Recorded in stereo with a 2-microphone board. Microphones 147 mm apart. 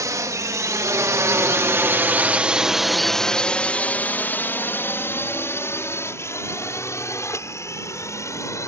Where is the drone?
25° right (ahead or behind); by 8.7 s 20° left (ahead or behind).